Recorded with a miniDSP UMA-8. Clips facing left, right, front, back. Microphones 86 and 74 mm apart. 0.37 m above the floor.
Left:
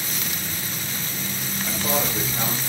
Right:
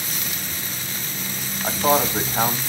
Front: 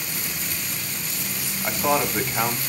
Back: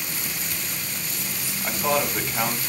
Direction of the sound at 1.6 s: 75° right.